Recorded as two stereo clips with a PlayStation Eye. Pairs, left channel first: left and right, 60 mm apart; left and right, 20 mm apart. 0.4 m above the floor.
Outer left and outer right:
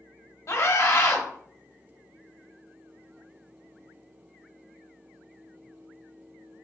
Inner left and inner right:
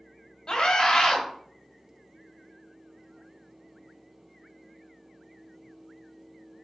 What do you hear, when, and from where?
0.5 s a scream: 60° left (ahead or behind), 1.7 m